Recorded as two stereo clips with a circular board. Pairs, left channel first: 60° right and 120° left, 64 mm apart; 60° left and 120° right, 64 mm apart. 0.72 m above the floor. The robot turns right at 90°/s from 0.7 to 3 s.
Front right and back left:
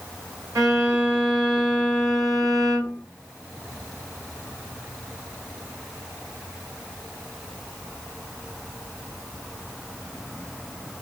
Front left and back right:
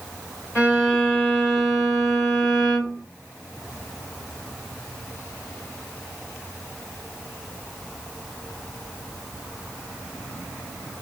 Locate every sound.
0.6 s a violin: 125° left, 2.5 m; by 3.0 s 30° right, 2.5 m